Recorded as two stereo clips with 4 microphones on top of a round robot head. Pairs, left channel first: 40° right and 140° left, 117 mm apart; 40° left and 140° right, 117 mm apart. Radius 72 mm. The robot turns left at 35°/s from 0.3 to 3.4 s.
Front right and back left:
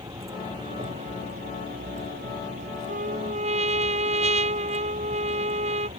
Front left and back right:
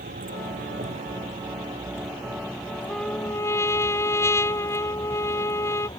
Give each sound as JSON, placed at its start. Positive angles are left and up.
{"t": 0.0, "sound": "a vehicle", "azimuth_deg": -155}
{"t": 2.9, "sound": "a trumpet", "azimuth_deg": 125}